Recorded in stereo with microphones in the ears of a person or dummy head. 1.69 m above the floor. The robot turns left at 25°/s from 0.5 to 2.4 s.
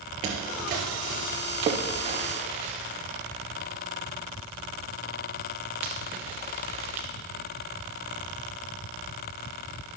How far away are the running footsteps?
About 2 m.